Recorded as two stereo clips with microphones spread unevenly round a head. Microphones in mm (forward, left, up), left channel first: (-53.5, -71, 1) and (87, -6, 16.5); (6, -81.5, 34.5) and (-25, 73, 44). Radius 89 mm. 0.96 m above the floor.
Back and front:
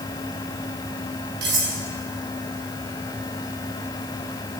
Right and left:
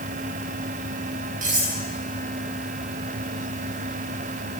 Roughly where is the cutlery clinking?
Ahead left.